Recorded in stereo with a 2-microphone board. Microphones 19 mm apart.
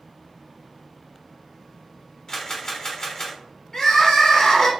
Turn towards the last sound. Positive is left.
turn(degrees=40)  # may be behind; listen again after turning